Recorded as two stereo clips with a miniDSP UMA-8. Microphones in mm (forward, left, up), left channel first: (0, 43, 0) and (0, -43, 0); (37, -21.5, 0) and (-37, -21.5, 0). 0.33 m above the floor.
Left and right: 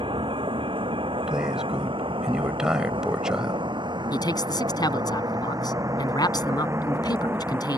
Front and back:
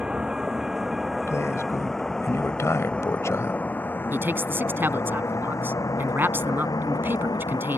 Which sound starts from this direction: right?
A vehicle, at 0.0 s.